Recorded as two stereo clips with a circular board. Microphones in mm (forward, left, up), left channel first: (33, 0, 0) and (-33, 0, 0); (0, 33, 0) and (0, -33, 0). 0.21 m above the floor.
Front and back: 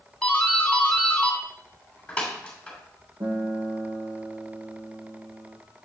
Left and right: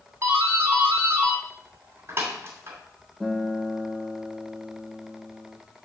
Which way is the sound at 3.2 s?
175° left.